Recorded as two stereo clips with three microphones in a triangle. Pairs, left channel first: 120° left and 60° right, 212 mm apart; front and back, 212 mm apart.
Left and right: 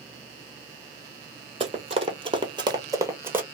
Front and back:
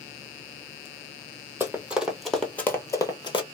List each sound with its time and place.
1.6 s running footsteps: 105° right, 1.1 m; by 3.4 s 10° left, 0.9 m